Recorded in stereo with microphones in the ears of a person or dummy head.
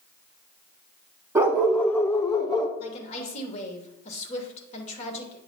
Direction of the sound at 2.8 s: 40° left (ahead or behind).